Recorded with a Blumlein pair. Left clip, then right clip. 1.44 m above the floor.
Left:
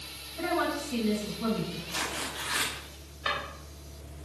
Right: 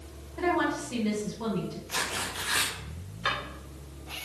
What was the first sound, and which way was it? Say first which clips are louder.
A woman speaking: right 2 dB; 55° right.